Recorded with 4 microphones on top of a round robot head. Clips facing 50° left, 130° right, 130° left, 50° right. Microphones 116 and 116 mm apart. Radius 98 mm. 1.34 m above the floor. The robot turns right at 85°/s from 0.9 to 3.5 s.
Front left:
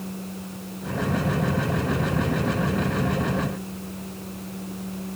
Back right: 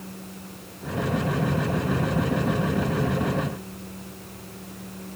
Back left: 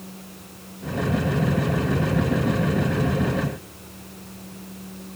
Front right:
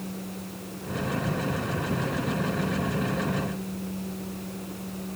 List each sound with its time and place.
Only background noise.